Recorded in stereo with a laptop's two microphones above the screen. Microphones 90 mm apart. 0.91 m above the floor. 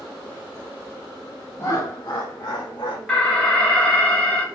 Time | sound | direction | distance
1.6 | laughter | 30° left (ahead or behind) | 0.5 m
3.1 | an alarm | 10° left (ahead or behind) | 0.7 m